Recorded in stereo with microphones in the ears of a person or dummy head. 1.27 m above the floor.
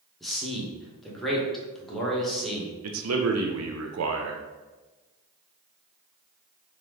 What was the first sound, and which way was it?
A man speaking, centre (ahead or behind).